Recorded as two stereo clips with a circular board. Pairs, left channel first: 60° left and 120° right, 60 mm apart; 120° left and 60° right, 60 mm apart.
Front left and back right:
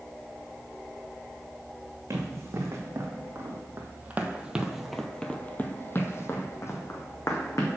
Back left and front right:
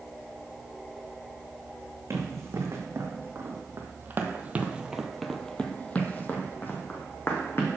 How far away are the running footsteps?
About 1.8 m.